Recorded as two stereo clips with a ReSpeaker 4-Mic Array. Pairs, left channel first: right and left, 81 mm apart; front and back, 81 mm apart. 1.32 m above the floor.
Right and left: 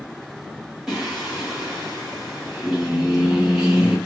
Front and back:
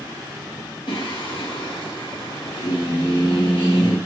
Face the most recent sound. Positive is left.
turn(degrees=5)